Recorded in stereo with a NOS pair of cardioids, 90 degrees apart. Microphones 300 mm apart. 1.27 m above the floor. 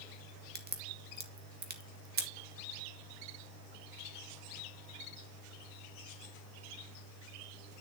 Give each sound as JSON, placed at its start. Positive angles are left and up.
{"t": 0.6, "sound": "a crack", "azimuth_deg": -35, "distance_m": 2.0}